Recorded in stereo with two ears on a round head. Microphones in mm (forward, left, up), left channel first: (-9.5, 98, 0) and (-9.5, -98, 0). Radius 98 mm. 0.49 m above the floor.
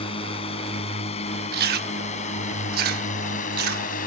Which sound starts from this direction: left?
A drone, at 0.0 s.